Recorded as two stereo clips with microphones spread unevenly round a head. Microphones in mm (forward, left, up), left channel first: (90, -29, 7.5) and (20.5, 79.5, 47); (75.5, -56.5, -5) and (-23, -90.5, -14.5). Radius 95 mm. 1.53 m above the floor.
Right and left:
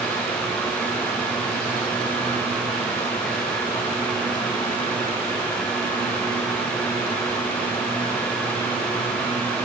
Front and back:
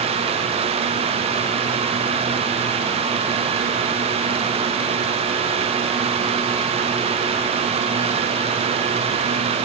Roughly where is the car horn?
I don't hear a car horn.